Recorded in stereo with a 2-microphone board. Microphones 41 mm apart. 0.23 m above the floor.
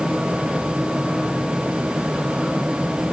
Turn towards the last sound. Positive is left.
No sound to turn to.